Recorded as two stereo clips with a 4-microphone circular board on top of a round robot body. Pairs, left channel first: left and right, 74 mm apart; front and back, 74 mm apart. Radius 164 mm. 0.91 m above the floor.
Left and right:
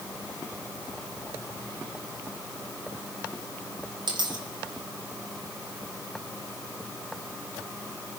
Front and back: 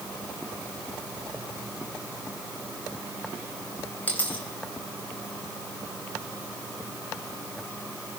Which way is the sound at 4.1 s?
70° right.